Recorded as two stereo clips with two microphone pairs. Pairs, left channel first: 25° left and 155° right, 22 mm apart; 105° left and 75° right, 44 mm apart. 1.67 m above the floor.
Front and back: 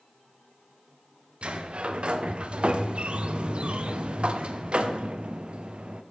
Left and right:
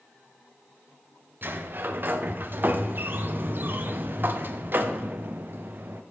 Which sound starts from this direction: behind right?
A sliding door, at 1.4 s.